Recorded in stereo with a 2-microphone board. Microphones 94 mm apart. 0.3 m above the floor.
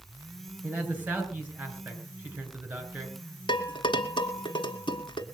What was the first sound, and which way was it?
A man speaking, 15° right (ahead or behind).